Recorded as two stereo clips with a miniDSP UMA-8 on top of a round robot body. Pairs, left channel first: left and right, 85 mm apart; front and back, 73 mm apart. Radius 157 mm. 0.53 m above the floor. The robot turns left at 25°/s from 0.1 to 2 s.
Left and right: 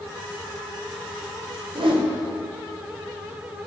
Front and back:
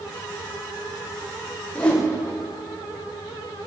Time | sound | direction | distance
1.8 | a whoosh | 75° right | 1.6 m